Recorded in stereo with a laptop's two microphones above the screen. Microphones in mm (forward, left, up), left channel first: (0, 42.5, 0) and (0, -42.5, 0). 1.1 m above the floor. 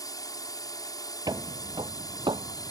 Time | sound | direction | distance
0.0 | a drone | 45° left (ahead or behind) | ?
1.3 | footsteps | 50° right (ahead or behind) | ?